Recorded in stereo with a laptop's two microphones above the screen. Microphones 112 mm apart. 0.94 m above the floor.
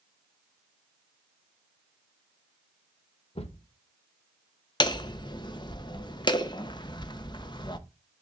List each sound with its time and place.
3.4 s a thud: 60° left (ahead or behind), 0.9 m
4.8 s hammering: 40° left (ahead or behind), 0.8 m